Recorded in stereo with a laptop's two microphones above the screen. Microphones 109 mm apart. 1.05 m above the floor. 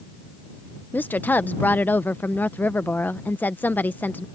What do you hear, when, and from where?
0.9 s a woman speaking: 15° left (ahead or behind)